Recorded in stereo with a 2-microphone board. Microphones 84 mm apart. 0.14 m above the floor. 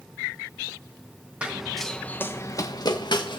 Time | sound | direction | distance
1.4 | running footsteps | 15° right (ahead or behind) | 1.4 m